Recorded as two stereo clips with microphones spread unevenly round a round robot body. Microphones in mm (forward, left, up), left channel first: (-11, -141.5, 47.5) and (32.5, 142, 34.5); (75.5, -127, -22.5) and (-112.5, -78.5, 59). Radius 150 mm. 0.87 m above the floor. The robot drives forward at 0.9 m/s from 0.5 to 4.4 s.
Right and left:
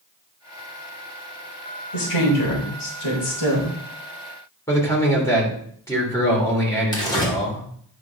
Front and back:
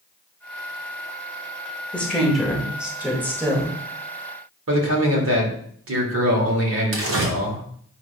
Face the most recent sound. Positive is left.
turn(degrees=-175)